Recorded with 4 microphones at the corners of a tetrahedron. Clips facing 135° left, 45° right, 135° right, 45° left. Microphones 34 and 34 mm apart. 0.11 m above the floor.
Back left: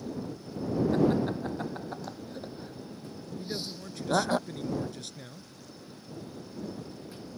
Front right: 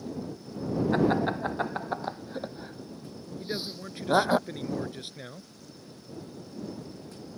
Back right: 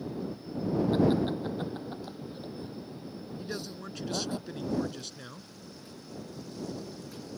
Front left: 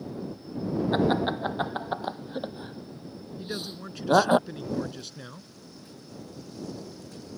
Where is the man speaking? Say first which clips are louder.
Front right 3 dB, front left 4 dB; 35° right.